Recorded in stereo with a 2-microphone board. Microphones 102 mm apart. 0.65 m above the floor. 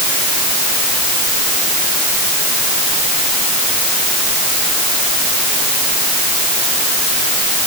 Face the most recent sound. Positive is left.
No sound to turn to.